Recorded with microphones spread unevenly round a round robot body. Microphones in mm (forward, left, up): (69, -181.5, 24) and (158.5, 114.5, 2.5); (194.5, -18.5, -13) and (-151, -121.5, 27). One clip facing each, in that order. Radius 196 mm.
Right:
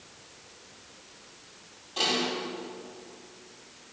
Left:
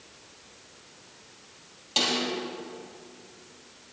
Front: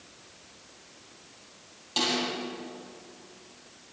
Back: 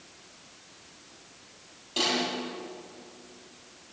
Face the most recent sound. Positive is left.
turn(degrees=90)